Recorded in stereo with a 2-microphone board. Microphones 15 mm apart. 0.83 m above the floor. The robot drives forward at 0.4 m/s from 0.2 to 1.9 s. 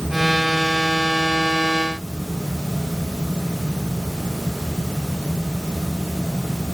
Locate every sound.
Only background noise.